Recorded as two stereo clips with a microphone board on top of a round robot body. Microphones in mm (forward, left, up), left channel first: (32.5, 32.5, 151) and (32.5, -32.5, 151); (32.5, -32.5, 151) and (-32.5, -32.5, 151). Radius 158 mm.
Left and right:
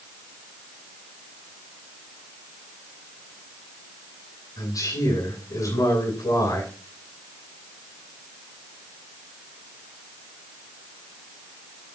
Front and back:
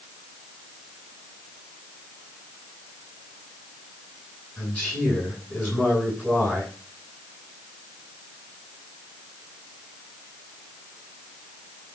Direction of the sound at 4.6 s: 85° left.